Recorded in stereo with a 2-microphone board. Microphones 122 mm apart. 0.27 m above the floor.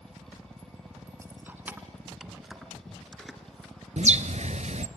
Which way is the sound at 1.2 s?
20° right (ahead or behind).